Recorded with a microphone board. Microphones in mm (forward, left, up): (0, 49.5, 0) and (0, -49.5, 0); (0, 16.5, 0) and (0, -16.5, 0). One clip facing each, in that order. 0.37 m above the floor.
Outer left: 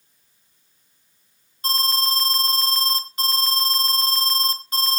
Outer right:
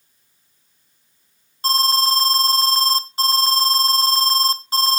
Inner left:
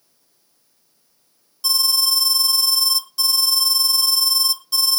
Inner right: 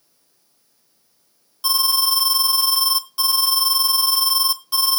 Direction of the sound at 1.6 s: 35° right (ahead or behind).